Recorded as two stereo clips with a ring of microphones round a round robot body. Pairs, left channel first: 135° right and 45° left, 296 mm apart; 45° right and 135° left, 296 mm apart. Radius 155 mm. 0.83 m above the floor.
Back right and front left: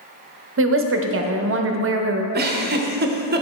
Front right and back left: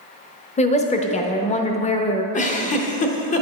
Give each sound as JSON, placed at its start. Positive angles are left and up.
{"t": 0.6, "sound": "a woman speaking", "azimuth_deg": 15, "distance_m": 0.7}
{"t": 2.3, "sound": "a giggle", "azimuth_deg": 10, "distance_m": 0.8}